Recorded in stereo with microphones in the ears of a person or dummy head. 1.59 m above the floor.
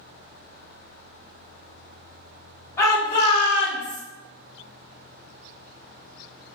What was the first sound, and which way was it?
A shout, 15° left (ahead or behind).